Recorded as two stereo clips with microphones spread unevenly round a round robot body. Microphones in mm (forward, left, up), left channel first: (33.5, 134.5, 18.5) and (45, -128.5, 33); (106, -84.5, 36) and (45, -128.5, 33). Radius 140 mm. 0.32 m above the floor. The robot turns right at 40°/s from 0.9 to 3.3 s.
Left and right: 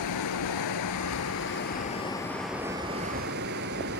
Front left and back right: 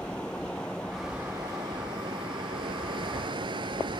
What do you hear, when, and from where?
0.0 s running water: 120° left, 0.7 m; by 4.0 s 145° right, 0.7 m